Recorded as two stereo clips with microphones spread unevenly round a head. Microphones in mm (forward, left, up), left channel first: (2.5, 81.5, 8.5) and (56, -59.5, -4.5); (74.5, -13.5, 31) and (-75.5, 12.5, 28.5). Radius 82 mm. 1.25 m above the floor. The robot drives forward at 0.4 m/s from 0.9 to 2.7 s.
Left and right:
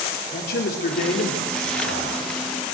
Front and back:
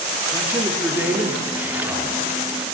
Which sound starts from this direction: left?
A man speaking, at 0.3 s.